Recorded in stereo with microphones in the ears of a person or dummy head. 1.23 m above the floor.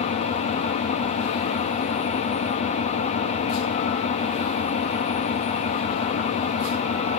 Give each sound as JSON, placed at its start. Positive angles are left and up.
{"t": 0.0, "sound": "an engine running", "side_deg": 40, "distance_m": 1.9}